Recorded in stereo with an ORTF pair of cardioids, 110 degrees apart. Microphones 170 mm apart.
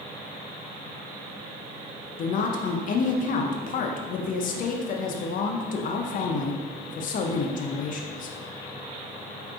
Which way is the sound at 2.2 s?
55° left.